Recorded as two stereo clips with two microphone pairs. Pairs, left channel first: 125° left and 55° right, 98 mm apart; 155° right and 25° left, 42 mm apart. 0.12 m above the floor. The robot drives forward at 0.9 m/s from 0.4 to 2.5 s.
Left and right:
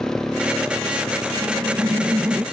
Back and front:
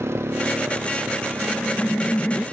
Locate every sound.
0.0 s a motorcycle: 35° left; by 2.5 s 40° left
1.4 s laughter: 105° right; by 2.4 s 135° right